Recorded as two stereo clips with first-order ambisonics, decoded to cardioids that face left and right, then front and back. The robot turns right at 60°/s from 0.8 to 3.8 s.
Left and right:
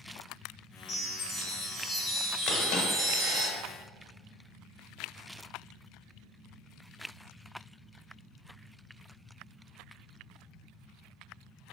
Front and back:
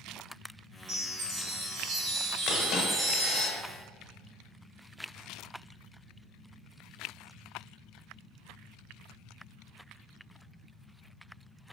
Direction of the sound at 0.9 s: 120° left.